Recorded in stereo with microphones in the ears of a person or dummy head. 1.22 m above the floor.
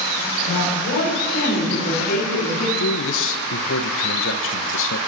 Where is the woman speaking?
65° left (ahead or behind), 6 m; by 2.7 s 50° left (ahead or behind), 3 m.